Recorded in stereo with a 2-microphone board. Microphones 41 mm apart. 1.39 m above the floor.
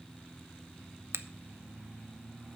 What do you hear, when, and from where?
1.1 s a finger snap: 70° right (ahead or behind), 0.6 m